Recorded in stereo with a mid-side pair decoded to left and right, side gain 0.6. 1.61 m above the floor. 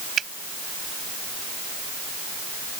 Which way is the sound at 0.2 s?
40° right.